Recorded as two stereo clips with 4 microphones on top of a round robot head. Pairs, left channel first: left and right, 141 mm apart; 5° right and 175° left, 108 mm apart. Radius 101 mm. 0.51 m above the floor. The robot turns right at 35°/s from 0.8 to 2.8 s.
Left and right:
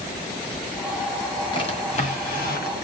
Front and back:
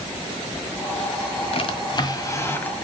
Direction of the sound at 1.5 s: 30° left.